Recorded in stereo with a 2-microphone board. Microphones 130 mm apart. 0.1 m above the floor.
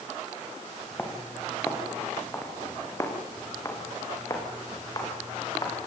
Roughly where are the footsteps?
Centre.